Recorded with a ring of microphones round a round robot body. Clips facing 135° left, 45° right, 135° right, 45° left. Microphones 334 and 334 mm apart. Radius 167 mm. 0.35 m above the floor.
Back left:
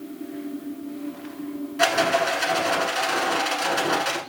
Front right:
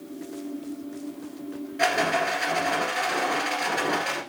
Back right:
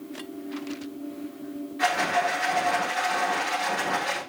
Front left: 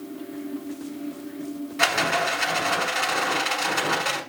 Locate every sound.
1.8 s a rattle: 65° left, 1.3 m